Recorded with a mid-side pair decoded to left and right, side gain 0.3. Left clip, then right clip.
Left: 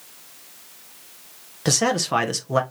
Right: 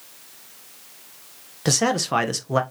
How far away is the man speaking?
About 0.9 m.